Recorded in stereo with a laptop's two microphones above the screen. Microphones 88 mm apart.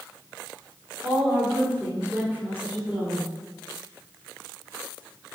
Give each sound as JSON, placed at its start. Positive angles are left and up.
{"t": 1.0, "sound": "a woman speaking", "side_deg": -20, "distance_m": 3.0}